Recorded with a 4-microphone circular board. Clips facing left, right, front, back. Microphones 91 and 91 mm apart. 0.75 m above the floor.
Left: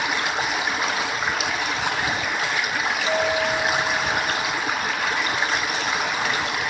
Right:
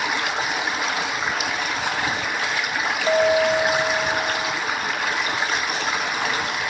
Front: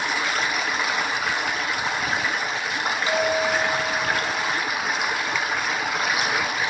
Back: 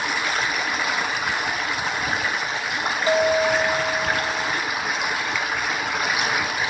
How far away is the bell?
About 1.7 m.